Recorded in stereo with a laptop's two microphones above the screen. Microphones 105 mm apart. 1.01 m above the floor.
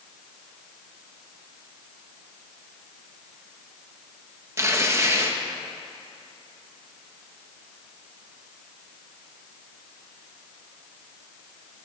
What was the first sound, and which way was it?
Tearing paper, 30° right (ahead or behind).